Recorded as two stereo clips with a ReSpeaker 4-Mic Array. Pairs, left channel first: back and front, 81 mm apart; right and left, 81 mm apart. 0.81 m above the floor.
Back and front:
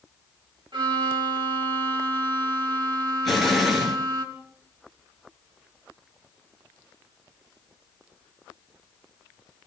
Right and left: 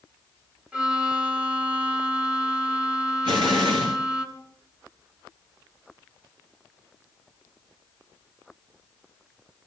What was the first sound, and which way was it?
A violin, 15° left.